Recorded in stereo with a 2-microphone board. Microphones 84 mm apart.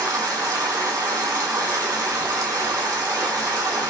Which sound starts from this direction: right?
Running water, at 0.0 s.